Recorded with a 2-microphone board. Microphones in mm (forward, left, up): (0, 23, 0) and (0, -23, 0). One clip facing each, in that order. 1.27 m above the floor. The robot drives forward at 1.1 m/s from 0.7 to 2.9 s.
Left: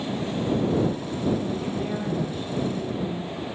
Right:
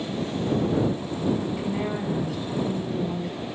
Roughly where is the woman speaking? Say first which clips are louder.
Right 1 dB; right.